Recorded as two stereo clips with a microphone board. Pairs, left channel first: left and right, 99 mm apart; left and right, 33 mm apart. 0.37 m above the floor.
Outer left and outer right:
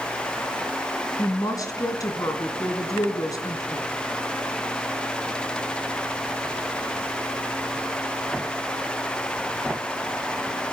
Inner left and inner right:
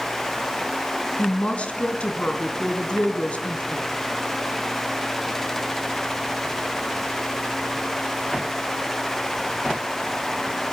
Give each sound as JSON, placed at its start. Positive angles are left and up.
{"t": 1.2, "sound": "a woman speaking", "side_deg": 40, "distance_m": 3.0}